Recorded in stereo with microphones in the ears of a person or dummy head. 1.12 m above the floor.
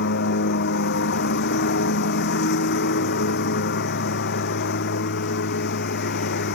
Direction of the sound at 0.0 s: 60° left (ahead or behind).